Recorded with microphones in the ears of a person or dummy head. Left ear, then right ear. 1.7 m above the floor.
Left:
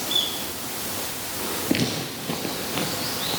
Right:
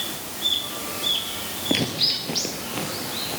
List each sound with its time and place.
1.7 s footsteps: 15° right (ahead or behind), 1.8 m; by 3.4 s centre (ahead or behind), 3 m